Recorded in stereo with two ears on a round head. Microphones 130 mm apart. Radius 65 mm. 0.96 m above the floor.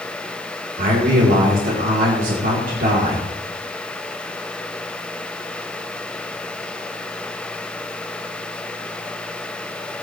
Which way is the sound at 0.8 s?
60° right (ahead or behind).